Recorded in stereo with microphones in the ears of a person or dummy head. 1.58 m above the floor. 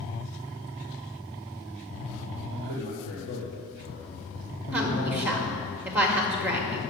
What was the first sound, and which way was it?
A man speaking, 55° left (ahead or behind).